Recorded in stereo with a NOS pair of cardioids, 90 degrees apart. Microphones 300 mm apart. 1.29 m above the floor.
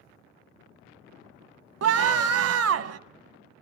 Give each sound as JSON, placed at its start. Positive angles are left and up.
{"t": 1.8, "sound": "a scream", "azimuth_deg": -55, "distance_m": 1.0}